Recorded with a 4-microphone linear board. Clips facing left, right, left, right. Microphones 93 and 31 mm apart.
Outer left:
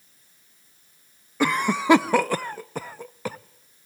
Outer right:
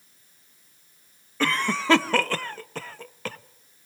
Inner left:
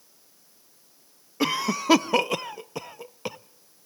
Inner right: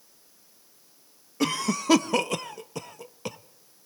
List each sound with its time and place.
1.4 s a cough: 15° left (ahead or behind), 0.6 m